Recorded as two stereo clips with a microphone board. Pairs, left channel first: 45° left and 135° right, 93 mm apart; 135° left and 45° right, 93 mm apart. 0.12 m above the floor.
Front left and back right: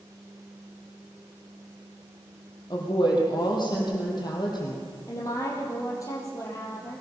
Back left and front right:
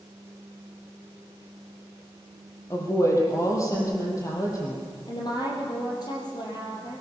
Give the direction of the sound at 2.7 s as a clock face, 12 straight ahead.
9 o'clock.